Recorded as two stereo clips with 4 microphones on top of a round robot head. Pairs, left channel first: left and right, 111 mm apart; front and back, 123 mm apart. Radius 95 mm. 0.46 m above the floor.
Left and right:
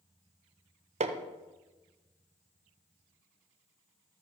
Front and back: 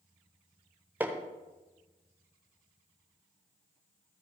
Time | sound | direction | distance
1.0 | hammering | 100° right | 0.9 m